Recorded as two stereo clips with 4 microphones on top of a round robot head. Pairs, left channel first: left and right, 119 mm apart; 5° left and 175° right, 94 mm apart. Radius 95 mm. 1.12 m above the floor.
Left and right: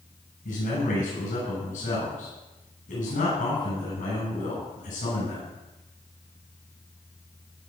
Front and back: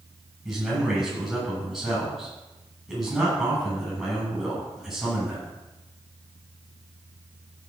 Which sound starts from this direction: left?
A man speaking, at 0.5 s.